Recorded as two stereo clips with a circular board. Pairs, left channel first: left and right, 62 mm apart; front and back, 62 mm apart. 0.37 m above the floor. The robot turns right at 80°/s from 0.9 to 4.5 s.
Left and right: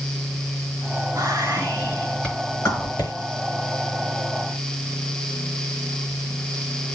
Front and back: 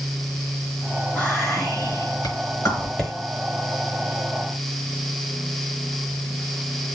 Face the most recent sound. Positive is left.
turn(degrees=-170)